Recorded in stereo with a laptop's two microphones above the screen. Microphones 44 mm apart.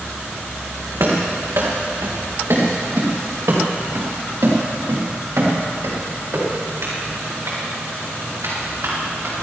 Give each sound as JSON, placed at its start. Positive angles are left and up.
{"t": 1.0, "sound": "running footsteps", "side_deg": -75, "distance_m": 3.5}